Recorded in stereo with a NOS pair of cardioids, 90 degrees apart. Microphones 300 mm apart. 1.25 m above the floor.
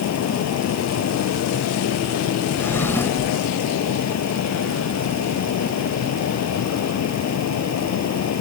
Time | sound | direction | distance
0.0 | a fan | 60° left | ?
2.6 | a drawer | 5° left | ?